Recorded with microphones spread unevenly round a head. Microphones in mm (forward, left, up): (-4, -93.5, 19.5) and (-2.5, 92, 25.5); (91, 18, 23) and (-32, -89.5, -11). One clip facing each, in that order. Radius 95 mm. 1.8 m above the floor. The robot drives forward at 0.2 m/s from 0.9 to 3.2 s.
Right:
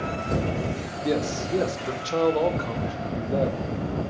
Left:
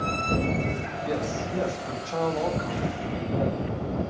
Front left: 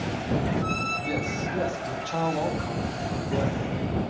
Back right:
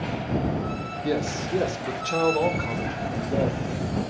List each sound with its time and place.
1.0 s a man speaking: 130° right, 2 m; by 3.6 s 140° right, 2.5 m